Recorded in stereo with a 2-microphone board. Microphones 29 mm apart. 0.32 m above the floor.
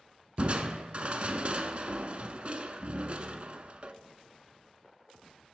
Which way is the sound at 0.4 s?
40° right (ahead or behind).